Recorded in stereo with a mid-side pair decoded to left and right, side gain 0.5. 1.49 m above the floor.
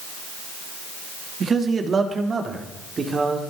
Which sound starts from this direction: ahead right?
A man speaking, at 1.4 s.